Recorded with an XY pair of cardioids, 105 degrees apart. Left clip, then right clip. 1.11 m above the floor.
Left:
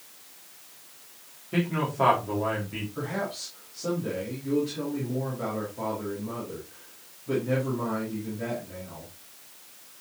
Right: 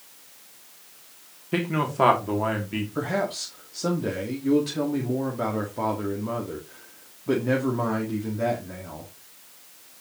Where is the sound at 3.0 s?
65° right, 1.9 m.